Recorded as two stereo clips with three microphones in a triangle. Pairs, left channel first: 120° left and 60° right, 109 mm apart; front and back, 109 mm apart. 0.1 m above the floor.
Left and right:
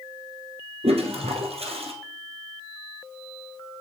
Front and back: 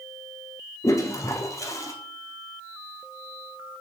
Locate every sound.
0.8 s a toilet flushing: 60° right, 1.7 m